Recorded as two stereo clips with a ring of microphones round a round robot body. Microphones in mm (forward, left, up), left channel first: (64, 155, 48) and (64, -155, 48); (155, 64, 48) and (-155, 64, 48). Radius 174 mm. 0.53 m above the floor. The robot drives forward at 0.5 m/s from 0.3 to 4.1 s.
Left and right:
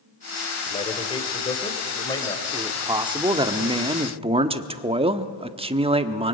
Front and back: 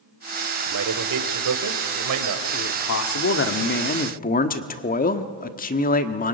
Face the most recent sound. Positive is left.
turn(degrees=-35)